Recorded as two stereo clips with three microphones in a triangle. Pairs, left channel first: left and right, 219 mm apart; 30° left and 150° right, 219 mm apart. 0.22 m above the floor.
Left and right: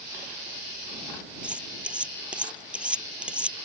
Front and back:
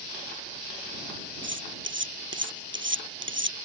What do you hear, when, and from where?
1.4 s cutlery clinking: 175° right